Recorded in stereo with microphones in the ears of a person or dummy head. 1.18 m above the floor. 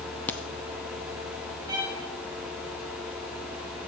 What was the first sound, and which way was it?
A crack, 15° left (ahead or behind).